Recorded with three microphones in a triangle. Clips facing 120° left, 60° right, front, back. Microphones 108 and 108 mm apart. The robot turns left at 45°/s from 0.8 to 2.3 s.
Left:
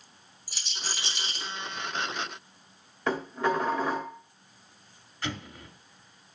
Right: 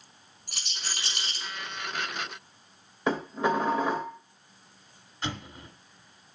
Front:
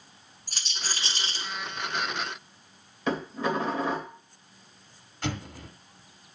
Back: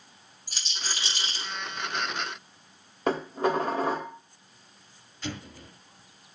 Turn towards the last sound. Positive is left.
turn(degrees=5)